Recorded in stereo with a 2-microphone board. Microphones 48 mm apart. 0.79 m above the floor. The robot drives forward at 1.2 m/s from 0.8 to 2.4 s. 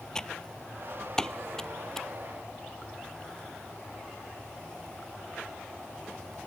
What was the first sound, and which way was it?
Typing on a keyboard, 15° left (ahead or behind).